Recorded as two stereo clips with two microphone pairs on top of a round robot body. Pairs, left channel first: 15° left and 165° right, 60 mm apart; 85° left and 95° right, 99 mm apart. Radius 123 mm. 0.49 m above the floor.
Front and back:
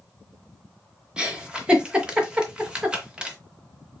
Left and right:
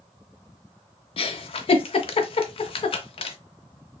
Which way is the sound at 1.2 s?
120° left.